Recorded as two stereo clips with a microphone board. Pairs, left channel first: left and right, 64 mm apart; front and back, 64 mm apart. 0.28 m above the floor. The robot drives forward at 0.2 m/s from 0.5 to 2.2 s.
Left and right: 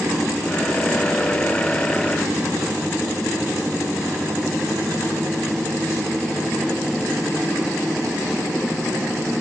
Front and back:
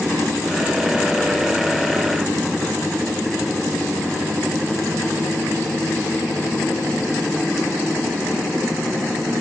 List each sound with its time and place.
Only background noise.